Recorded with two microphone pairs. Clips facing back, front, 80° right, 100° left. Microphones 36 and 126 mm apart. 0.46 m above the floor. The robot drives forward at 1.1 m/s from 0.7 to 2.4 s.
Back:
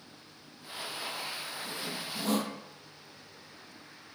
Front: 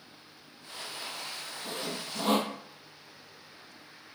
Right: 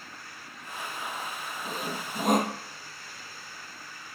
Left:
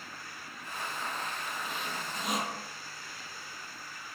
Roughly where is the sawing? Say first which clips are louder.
Front 5 dB, right 3 dB; ahead right.